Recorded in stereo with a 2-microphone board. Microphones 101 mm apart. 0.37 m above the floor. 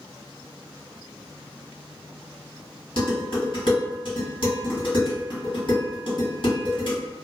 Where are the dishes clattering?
60° left (ahead or behind), 1.6 m.